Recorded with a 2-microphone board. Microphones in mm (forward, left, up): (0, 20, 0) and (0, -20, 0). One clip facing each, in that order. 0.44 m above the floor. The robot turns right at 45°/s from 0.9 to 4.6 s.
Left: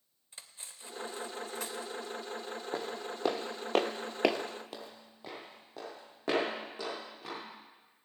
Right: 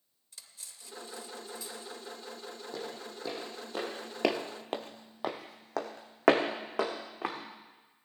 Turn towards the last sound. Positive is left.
turn(degrees=-85)